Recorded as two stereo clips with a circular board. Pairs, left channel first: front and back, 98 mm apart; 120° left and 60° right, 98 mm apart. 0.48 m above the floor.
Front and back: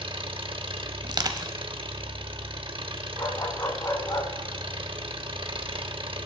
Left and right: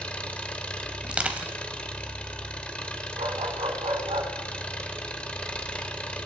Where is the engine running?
160° right, 0.8 m.